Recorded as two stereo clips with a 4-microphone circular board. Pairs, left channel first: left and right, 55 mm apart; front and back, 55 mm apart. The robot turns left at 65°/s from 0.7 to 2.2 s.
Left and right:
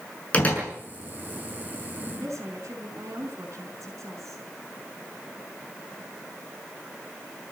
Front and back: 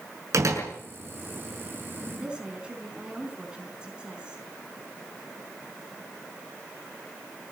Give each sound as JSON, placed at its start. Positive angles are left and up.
{"t": 0.3, "sound": "a door slam", "azimuth_deg": 155, "distance_m": 6.5}
{"t": 2.1, "sound": "a woman speaking", "azimuth_deg": -100, "distance_m": 5.0}